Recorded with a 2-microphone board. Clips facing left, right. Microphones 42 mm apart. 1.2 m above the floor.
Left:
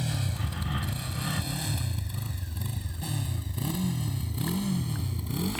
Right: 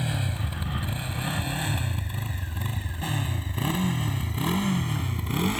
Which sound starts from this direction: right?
A motorcycle, at 0.0 s.